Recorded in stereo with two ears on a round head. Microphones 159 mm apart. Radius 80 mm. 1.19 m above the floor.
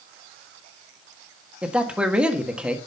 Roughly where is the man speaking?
Centre.